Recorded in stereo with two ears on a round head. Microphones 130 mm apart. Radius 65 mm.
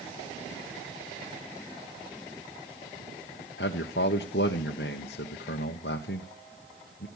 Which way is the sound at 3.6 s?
85° left.